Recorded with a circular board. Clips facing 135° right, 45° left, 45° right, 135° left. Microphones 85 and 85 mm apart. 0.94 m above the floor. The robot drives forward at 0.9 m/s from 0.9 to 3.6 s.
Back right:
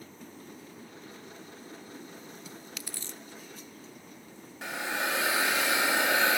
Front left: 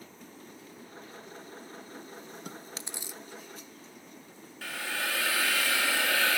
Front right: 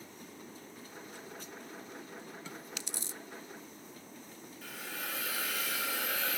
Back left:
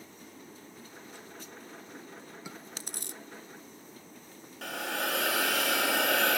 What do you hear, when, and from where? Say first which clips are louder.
2.5 s chewing: front left 2 dB, even; 60° left, 0.6 m; by 3.2 s 135° left, 0.7 m
4.6 s a hiss: back right 3 dB, back left 10 dB; 155° left, 1.0 m